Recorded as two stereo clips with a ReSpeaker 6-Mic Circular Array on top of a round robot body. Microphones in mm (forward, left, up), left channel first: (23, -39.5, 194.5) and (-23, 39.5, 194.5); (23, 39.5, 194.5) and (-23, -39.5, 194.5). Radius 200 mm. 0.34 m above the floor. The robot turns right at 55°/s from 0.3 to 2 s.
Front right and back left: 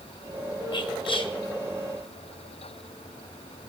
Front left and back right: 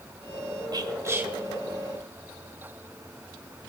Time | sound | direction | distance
0.7 | whispering | 80° right | 1.3 m